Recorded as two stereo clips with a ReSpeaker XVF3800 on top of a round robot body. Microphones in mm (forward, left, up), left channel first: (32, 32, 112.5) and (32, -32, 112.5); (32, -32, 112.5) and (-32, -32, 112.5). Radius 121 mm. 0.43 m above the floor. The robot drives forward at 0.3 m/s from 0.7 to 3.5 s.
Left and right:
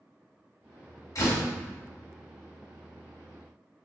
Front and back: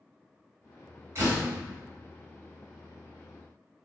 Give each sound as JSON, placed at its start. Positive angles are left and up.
{"t": 1.1, "sound": "a door slam", "azimuth_deg": 130, "distance_m": 1.9}